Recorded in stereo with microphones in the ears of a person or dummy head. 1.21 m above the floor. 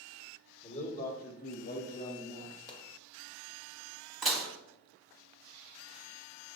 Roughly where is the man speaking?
Left.